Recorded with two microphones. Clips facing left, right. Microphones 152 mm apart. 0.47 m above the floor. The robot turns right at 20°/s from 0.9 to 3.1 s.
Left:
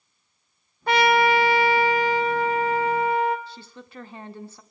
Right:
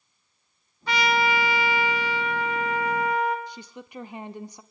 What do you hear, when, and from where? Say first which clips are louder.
0.9 s a trumpet: left 5 dB; 100° left, 1.7 m; by 3.4 s 145° left, 1.7 m
3.5 s a woman speaking: right 2 dB; 15° right (ahead or behind), 0.8 m